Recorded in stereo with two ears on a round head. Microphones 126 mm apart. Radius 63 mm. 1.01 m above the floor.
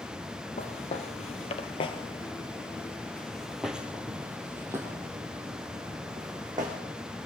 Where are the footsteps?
55° left (ahead or behind), 1.7 m; by 6.8 s 30° right (ahead or behind), 3 m.